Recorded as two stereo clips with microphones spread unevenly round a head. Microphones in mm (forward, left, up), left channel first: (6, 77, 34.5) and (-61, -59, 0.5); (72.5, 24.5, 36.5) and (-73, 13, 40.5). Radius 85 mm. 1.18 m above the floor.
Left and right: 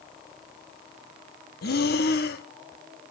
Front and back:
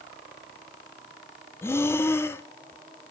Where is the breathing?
80° left, 1.5 m.